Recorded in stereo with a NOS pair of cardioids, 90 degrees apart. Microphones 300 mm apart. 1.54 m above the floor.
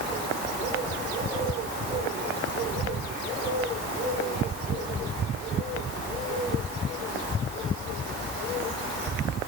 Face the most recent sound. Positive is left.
No sound to turn to.